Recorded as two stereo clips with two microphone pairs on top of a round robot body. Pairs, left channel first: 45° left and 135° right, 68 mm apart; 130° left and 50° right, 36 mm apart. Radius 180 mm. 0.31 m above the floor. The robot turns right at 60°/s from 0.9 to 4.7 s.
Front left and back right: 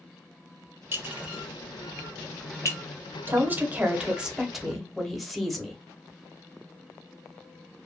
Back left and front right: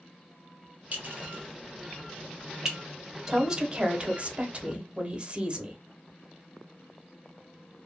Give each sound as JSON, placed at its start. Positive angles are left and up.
{"t": 0.9, "sound": "a clink", "azimuth_deg": -85, "distance_m": 1.2}
{"t": 3.3, "sound": "a woman speaking", "azimuth_deg": -120, "distance_m": 1.1}